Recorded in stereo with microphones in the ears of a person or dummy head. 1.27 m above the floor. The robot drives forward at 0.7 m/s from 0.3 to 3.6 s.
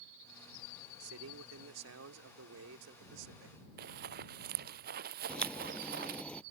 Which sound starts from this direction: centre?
A crack, at 5.3 s.